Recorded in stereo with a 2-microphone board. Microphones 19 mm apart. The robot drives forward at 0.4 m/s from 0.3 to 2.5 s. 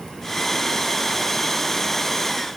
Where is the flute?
No flute in this recording.